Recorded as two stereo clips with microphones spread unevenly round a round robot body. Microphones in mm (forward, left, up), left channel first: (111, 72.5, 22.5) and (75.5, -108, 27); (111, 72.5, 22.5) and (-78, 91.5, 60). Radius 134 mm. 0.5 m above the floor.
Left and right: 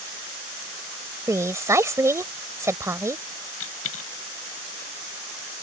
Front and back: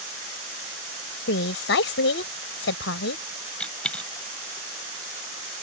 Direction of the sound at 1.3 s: 25° right.